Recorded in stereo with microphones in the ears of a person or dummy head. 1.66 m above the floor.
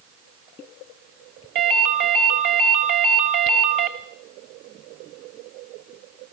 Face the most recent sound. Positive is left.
turn(degrees=-65)  # may be behind; listen again after turning